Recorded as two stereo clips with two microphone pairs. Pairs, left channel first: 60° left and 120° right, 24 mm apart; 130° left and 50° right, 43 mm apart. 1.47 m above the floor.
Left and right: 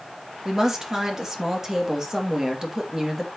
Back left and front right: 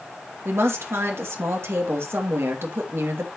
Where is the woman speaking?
50° right, 2.5 m.